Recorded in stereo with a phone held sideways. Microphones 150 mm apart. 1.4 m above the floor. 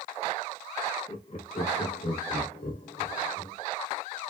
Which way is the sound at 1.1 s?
40° left (ahead or behind).